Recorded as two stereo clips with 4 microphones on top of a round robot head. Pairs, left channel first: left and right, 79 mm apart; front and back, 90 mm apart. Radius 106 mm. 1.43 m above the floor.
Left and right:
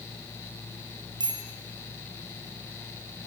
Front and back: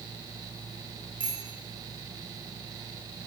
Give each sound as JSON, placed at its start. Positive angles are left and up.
{"t": 1.2, "sound": "a bicycle bell", "azimuth_deg": -110, "distance_m": 3.5}